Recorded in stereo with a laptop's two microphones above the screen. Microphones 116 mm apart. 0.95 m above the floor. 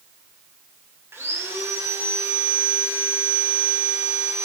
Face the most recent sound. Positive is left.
turn(degrees=-20)  # may be behind; listen again after turning